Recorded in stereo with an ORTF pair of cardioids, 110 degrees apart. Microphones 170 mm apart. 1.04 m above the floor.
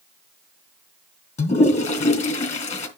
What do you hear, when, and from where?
1.4 s a toilet flushing: 45° left, 3 m